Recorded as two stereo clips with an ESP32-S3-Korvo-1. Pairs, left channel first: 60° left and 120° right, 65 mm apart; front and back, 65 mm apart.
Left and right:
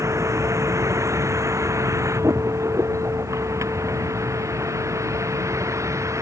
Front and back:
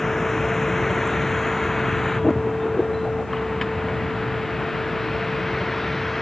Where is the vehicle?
80° right; by 6.2 s 85° right.